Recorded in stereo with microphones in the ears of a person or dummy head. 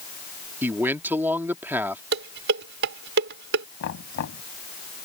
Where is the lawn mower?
No lawn mower in this recording.